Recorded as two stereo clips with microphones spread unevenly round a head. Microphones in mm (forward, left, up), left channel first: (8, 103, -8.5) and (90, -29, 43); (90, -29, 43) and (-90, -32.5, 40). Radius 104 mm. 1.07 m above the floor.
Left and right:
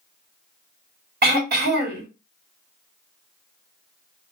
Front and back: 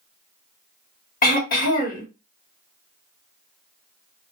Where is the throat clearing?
35° right, 1.4 m.